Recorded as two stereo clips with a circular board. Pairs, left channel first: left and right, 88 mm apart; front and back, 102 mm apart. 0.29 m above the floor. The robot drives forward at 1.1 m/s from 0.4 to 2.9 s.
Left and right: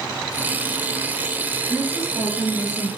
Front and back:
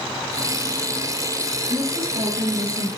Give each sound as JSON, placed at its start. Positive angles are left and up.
{"t": 1.7, "sound": "a woman speaking", "azimuth_deg": 160, "distance_m": 2.5}